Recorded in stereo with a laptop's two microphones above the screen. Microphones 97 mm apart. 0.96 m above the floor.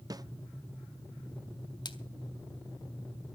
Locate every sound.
0.1 s a snare drum: 40° right (ahead or behind), 0.5 m
1.9 s a splash: 50° left (ahead or behind), 1.7 m